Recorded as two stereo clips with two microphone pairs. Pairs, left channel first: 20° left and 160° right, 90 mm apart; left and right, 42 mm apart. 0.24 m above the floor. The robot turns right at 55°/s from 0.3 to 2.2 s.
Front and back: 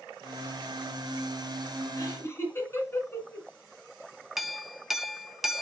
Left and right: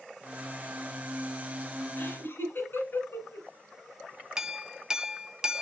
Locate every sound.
2.0 s laughter: 65° left, 2.5 m; by 3.5 s 75° left, 2.5 m
4.4 s a clink: 75° right, 0.5 m